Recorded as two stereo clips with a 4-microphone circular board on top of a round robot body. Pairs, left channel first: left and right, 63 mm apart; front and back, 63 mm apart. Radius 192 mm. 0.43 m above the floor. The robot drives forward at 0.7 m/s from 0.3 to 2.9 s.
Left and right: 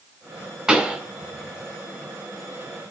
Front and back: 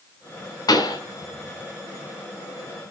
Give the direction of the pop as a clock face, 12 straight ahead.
12 o'clock.